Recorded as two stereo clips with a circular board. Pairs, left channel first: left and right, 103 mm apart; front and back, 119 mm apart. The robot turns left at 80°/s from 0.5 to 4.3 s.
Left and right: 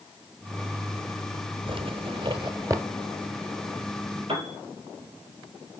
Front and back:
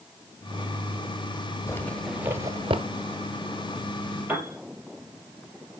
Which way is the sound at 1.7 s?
60° right.